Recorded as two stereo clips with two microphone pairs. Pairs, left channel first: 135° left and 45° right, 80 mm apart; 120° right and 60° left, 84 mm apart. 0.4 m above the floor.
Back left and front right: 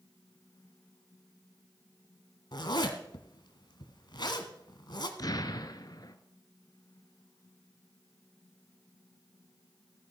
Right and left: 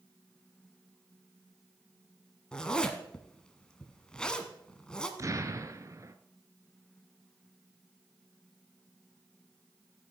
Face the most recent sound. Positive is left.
turn(degrees=105)